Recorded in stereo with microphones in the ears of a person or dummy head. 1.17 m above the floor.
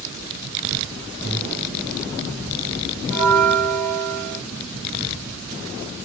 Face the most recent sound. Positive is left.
turn(degrees=-30)  # may be behind; listen again after turning